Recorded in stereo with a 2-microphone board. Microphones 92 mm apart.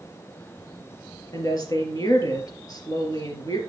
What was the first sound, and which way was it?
A woman speaking, 45° left (ahead or behind).